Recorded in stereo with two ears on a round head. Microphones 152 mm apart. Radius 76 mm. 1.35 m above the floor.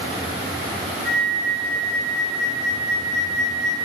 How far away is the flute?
About 2.5 m.